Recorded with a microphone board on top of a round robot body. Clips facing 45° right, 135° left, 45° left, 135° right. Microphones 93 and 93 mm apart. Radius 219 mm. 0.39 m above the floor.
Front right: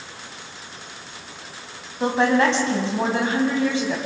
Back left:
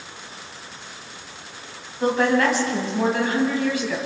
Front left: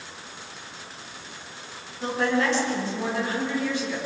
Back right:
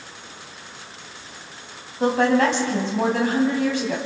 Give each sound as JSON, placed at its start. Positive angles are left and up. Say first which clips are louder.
{"t": 2.0, "sound": "a woman speaking", "louder": "front right 1 dB, back right 6 dB", "azimuth_deg": -105, "distance_m": 3.5}